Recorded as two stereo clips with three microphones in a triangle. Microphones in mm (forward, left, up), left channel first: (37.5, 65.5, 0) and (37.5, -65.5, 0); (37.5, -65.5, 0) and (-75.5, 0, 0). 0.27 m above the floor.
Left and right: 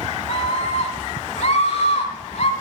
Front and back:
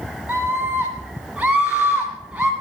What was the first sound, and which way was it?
A scream, 70° left.